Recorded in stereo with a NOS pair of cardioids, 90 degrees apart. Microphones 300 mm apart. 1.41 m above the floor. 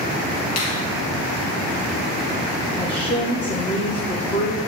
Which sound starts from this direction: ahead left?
A finger snap, at 0.6 s.